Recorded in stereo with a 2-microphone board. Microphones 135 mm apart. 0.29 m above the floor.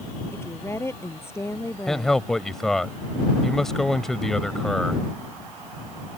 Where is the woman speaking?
20° left (ahead or behind).